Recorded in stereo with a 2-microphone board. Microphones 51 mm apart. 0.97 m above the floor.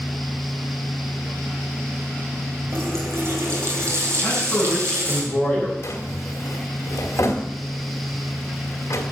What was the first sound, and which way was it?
A running tap, 55° right (ahead or behind).